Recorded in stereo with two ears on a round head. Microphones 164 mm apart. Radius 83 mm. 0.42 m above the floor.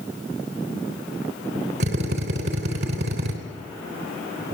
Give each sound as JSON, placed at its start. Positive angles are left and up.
{"t": 1.8, "sound": "a drill", "side_deg": -65, "distance_m": 3.5}